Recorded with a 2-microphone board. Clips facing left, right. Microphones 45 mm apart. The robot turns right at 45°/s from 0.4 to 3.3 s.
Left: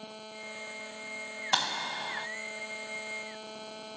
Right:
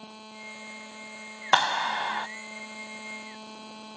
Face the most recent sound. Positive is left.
turn(degrees=-35)